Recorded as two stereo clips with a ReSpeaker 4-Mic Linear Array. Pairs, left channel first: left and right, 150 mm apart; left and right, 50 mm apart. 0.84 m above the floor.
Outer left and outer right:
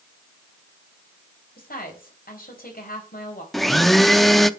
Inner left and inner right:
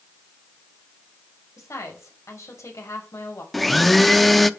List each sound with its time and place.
1.6 s a woman speaking: 80° left, 4.5 m
3.5 s a blender: centre (ahead or behind), 0.6 m